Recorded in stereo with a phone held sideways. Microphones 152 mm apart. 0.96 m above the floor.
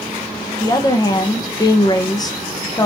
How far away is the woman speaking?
About 0.6 m.